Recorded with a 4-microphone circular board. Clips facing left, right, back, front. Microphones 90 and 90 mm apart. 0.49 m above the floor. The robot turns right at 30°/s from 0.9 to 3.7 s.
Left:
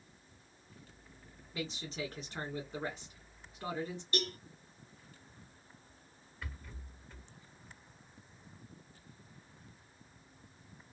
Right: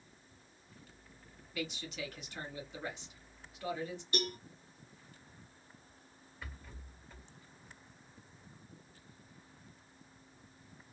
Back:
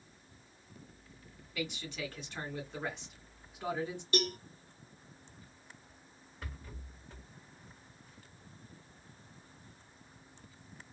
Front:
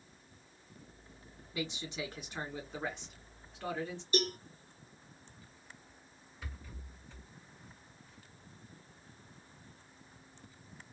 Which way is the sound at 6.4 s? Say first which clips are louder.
Left 2 dB, back 2 dB; straight behind.